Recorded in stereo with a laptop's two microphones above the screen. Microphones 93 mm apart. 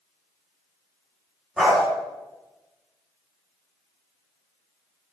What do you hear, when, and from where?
1.6 s a dog barking: 5° right (ahead or behind), 0.9 m